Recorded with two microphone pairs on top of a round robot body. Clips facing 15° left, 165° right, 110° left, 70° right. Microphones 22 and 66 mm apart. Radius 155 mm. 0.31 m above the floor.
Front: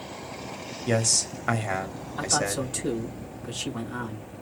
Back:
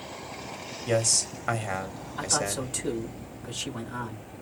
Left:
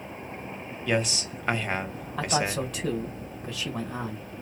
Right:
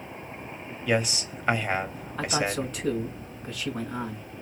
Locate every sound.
0.9 s a man speaking: 35° right, 1.2 m
2.2 s a man speaking: 90° left, 3.5 m